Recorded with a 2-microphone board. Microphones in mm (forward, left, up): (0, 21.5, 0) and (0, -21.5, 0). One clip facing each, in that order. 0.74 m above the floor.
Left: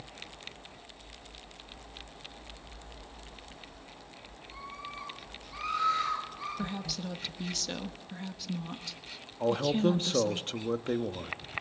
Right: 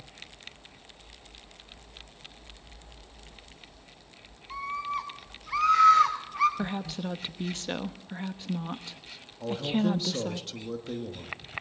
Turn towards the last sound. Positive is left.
turn(degrees=45)  # may be behind; listen again after turning